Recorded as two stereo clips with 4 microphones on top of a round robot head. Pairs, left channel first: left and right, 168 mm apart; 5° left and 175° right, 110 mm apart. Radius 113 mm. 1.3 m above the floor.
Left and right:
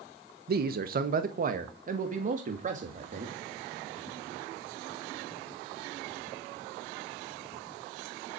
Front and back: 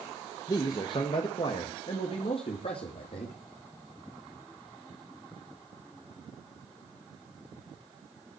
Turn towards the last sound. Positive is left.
turn(degrees=-45)